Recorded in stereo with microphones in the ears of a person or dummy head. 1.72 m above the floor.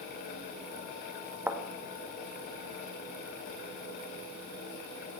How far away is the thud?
About 1.3 m.